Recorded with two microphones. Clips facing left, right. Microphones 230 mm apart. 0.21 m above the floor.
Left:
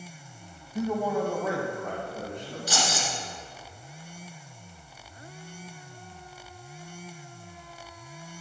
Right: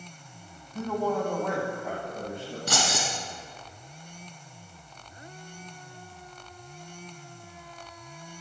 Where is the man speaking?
15° left (ahead or behind), 1.3 m; by 2.6 s 10° right (ahead or behind), 2.5 m.